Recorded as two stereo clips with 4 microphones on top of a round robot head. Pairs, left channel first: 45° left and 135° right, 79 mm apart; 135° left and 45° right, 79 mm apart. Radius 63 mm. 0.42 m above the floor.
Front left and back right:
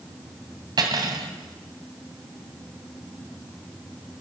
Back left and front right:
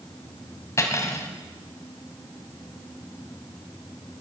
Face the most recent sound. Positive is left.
turn(degrees=-170)